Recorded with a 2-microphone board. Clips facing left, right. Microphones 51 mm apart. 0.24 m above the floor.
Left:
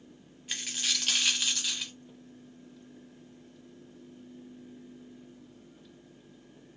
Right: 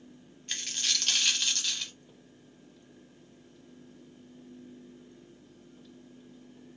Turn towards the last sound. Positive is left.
turn(degrees=5)  # may be behind; listen again after turning